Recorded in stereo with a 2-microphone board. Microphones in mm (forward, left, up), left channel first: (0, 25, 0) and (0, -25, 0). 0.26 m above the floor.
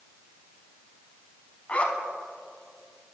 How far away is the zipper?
About 0.6 m.